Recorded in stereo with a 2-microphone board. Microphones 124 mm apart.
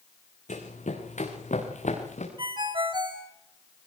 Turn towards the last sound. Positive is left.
turn(degrees=-40)  # may be behind; listen again after turning